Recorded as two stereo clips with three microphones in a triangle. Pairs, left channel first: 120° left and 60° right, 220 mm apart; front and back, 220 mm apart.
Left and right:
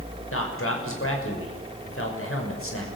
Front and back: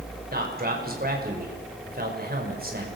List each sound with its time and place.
0.3 s a man speaking: 135° left, 6 m